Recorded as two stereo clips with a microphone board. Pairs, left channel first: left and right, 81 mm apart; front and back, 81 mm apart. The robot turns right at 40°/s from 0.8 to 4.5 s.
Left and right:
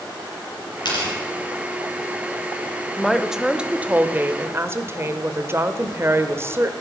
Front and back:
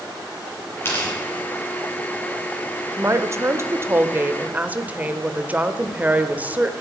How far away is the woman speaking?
About 1.0 m.